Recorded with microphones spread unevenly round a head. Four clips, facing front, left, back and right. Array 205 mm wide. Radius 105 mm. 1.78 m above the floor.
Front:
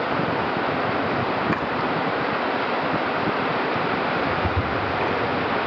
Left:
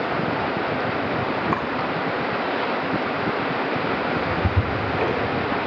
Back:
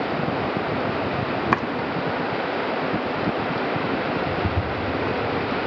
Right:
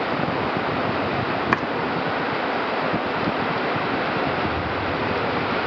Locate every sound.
1.5 s chopping: 120° right, 0.7 m
4.1 s ticking: 75° left, 4.5 m